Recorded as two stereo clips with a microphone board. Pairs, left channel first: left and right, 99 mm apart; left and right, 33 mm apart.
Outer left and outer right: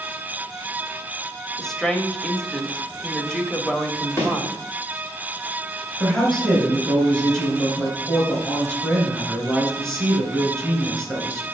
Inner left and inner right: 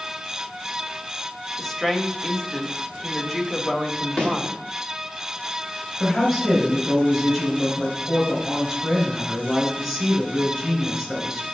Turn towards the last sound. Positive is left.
turn(degrees=5)  # may be behind; listen again after turning